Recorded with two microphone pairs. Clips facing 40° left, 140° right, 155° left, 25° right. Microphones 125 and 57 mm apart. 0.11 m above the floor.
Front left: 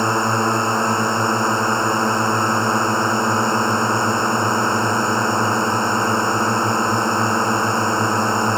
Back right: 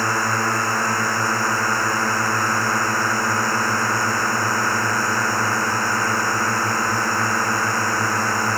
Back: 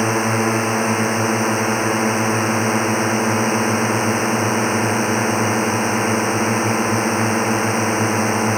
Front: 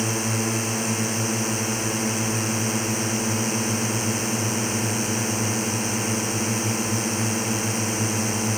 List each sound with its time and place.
0.0 s a drone: 110° left